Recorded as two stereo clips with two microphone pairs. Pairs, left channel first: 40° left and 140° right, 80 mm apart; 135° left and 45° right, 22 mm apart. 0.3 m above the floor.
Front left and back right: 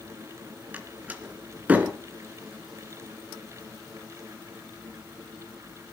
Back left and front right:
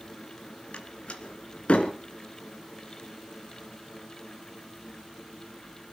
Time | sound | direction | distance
0.7 | a door slam | 150° left | 2.5 m